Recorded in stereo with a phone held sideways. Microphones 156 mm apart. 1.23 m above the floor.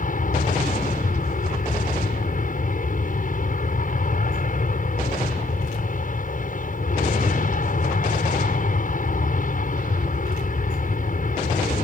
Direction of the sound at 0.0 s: 60° left (ahead or behind).